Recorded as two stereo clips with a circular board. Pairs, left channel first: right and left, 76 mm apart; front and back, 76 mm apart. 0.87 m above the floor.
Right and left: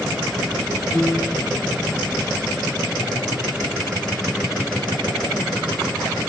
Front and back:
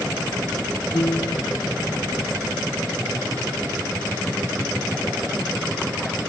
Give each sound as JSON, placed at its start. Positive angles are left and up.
{"t": 0.9, "sound": "a piano", "azimuth_deg": -25}